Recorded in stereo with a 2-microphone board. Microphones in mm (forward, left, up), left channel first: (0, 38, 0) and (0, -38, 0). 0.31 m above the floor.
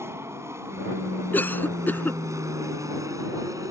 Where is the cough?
25° left (ahead or behind).